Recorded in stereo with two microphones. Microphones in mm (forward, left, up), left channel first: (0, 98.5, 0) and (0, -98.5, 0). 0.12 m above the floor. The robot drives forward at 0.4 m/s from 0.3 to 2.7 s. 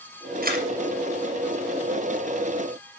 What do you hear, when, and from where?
0.4 s a camera shutter: 45° right (ahead or behind), 2 m; by 0.7 s 50° right (ahead or behind), 2 m